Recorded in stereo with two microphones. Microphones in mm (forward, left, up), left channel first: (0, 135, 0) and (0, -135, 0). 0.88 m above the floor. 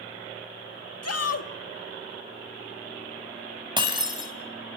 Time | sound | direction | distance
1.0 | a shout | 70° left (ahead or behind) | 1.7 m
3.8 | breaking glass | 20° right (ahead or behind) | 3 m